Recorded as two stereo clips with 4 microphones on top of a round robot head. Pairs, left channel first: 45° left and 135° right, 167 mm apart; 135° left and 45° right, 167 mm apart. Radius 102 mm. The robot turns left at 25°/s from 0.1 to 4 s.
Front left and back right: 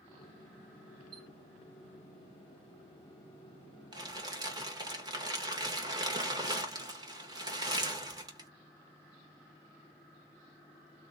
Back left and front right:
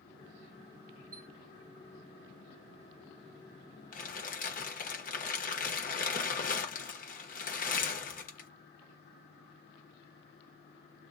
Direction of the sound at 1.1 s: 75° right.